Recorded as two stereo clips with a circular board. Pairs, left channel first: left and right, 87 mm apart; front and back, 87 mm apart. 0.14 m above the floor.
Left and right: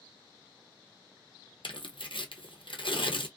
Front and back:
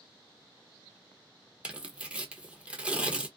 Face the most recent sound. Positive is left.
turn(degrees=105)